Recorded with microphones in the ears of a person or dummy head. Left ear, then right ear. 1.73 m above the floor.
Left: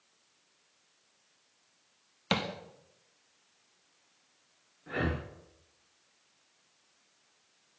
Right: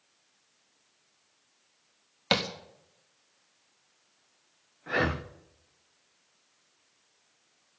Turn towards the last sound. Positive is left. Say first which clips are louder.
# right 6 dB
turn(degrees=-30)  # may be behind; listen again after turning